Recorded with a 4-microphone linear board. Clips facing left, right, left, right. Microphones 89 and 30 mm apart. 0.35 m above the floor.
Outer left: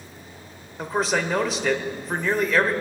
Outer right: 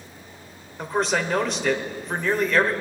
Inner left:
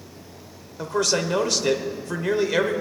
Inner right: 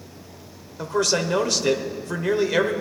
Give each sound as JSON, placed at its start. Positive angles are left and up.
{"t": 0.8, "sound": "a man speaking", "side_deg": 0, "distance_m": 0.8}